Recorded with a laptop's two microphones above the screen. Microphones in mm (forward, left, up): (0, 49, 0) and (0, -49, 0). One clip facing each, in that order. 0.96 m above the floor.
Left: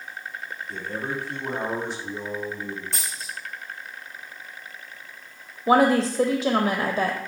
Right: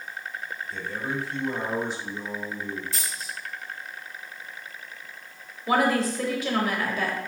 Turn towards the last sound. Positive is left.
turn(degrees=40)  # may be behind; listen again after turning